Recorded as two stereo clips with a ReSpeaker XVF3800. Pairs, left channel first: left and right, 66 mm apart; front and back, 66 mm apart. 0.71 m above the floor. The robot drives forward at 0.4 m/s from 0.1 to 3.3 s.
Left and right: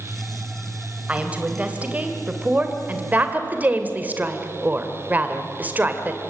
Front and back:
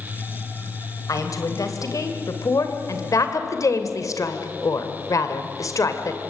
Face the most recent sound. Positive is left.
turn(degrees=-25)